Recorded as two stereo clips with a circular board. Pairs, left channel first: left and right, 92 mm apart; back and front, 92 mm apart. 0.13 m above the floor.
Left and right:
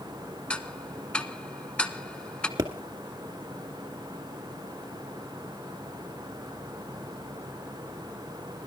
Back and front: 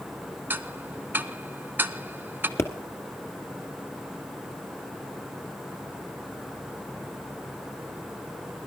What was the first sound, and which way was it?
Ticking, 30° left.